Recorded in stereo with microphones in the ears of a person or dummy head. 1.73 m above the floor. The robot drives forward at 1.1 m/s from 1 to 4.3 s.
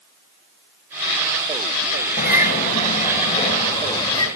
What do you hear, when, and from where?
2.2 s a bird: 45° left (ahead or behind), 2 m; by 4.2 s 20° left (ahead or behind), 4 m